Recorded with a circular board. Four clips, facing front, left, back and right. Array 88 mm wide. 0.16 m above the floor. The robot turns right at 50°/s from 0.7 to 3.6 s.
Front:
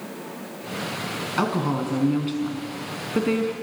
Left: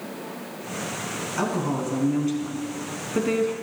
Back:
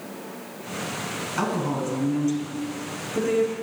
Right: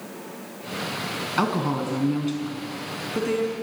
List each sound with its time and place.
1.4 s a woman speaking: 65° right, 1.3 m; by 3.5 s 40° left, 1.3 m